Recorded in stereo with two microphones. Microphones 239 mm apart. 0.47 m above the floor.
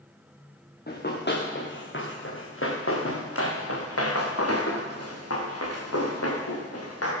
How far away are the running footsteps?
About 3.5 m.